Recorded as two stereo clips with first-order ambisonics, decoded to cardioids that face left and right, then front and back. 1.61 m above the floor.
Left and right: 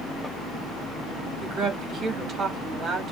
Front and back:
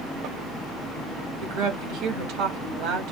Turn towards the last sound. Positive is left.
turn(degrees=-155)